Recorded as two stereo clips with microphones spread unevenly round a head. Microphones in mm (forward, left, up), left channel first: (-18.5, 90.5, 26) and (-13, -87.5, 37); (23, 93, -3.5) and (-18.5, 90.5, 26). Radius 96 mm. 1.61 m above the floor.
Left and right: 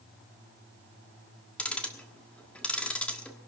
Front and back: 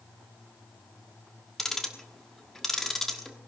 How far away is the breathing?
No breathing in this recording.